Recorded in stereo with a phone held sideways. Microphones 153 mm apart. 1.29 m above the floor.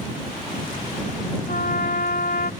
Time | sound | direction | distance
1.5 | a trumpet | 85° left | ?